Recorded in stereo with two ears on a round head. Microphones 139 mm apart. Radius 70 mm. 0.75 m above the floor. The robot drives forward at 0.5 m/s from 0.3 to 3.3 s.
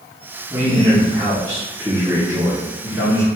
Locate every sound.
0.5 s a man speaking: 15° right (ahead or behind), 2 m; by 3.3 s 10° right (ahead or behind), 3.5 m